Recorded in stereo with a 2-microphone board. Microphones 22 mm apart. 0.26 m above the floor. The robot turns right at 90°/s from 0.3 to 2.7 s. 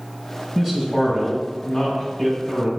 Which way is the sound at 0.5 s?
5° right.